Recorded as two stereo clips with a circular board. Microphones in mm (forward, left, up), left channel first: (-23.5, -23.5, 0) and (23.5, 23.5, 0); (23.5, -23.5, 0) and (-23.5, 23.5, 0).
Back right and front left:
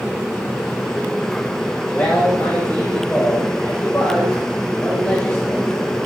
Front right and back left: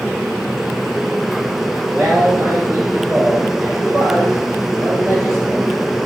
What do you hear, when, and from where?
1.9 s a man speaking: 170° left, 4 m